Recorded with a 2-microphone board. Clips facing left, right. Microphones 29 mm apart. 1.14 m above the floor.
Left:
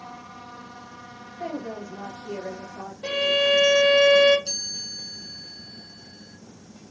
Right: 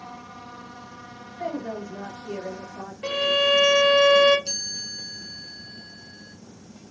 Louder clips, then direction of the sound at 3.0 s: Even; 50° right (ahead or behind).